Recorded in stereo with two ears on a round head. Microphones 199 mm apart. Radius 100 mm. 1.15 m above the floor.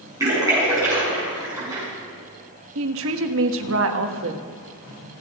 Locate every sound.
0.2 s a splash: 15° right (ahead or behind), 7.5 m
2.8 s a woman speaking: 65° right (ahead or behind), 1.3 m